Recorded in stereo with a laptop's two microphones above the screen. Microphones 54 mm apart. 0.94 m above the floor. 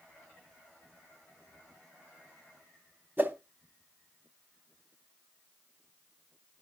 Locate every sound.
3.2 s a whoosh: 35° right (ahead or behind), 0.9 m